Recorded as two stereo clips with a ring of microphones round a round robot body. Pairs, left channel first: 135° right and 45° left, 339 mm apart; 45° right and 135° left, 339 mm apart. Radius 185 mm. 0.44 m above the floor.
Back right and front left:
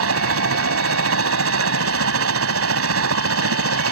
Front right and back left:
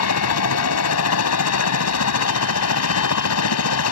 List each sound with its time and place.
0.0 s a helicopter: 5° right